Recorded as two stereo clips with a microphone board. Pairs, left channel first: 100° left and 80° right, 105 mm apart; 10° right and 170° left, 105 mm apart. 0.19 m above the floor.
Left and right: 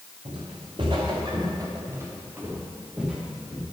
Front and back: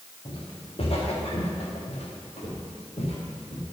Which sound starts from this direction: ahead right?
Footsteps, at 0.2 s.